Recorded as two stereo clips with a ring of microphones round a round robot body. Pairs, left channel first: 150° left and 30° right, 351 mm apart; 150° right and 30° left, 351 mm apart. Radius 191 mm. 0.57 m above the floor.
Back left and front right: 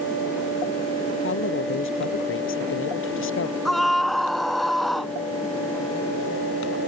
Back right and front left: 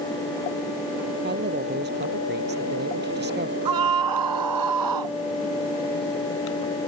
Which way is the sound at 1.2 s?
95° left.